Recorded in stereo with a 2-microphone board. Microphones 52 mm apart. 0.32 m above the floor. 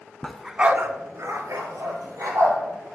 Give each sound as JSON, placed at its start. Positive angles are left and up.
{"t": 0.2, "sound": "a dog barking", "side_deg": 20, "distance_m": 0.7}